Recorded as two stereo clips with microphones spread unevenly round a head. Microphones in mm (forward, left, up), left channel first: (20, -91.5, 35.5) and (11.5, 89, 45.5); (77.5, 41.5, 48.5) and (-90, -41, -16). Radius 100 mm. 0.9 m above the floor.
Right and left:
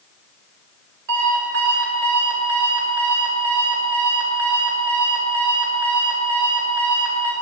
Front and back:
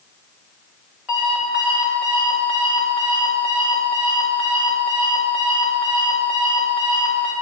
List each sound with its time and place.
1.1 s an alarm clock: 120° left, 2.5 m